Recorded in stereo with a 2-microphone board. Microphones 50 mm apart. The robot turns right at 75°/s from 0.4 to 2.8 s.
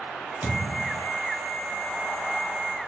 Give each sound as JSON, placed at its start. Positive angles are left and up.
{"t": 0.4, "sound": "a thud", "azimuth_deg": -135, "distance_m": 1.0}